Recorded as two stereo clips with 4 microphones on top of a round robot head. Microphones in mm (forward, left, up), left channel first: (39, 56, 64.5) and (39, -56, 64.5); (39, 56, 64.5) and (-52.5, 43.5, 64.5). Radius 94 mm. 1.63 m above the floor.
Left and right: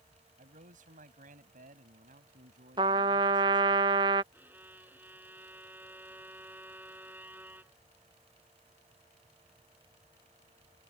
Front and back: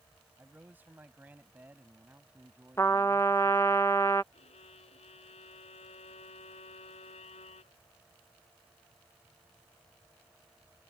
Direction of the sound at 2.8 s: 60° right.